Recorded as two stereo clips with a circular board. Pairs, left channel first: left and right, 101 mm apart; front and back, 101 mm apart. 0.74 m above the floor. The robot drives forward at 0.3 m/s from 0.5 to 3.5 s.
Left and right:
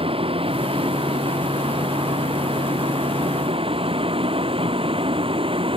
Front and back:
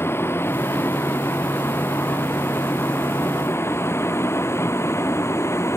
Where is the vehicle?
65° right.